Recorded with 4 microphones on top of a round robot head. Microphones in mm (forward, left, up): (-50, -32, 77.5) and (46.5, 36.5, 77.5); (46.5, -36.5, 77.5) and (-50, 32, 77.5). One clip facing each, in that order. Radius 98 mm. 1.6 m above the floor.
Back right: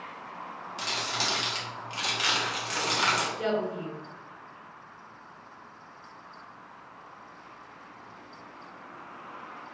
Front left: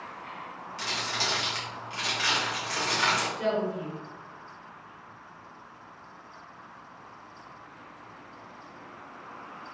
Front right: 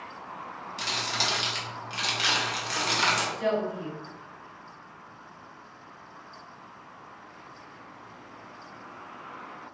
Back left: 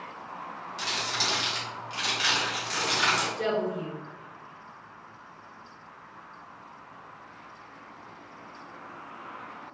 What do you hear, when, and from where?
0.8 s crumpling: 75° right, 0.8 m
3.4 s a woman speaking: 135° left, 1.3 m